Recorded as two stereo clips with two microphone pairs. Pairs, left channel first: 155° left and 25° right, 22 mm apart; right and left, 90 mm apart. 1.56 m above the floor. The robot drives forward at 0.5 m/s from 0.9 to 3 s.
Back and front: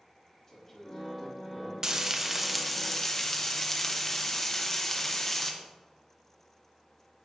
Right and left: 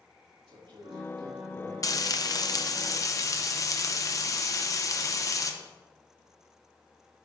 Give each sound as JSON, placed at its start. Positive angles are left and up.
{"t": 0.5, "sound": "a man speaking", "azimuth_deg": 75, "distance_m": 2.5}
{"t": 1.8, "sound": "frying", "azimuth_deg": -65, "distance_m": 0.7}